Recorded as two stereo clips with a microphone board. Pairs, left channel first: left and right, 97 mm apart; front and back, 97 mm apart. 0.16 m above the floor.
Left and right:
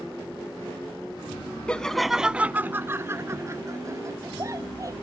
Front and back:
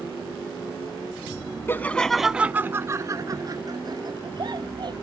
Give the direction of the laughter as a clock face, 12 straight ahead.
11 o'clock.